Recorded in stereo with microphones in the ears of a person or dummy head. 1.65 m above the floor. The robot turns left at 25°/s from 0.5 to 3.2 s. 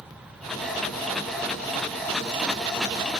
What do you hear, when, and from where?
Only background noise.